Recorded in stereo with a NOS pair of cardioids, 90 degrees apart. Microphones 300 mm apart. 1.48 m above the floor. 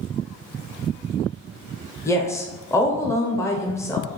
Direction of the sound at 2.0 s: 10° left.